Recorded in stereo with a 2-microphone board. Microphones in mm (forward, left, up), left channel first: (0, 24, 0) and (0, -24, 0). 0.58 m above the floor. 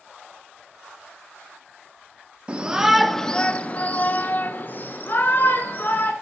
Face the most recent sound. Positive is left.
turn(degrees=40)  # may be behind; listen again after turning